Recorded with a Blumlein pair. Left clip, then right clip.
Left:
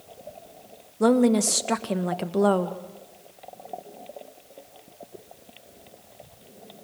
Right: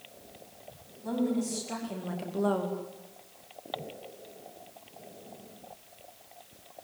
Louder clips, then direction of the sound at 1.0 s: Left 12 dB; 45° left.